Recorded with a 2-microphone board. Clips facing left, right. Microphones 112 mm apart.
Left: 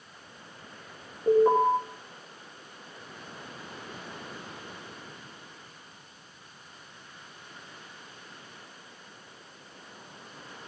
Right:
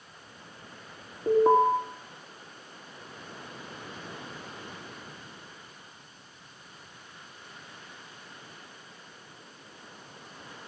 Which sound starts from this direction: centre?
An alarm, at 1.3 s.